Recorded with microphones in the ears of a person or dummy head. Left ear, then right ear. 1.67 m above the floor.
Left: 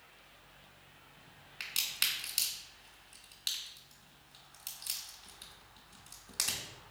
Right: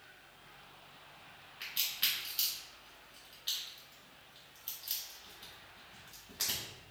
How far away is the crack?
About 1.1 m.